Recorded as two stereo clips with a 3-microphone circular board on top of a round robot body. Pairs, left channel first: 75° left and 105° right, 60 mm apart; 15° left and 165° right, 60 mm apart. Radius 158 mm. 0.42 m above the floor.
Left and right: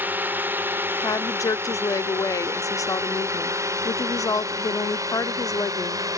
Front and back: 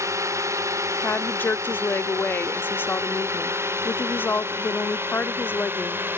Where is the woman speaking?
70° left.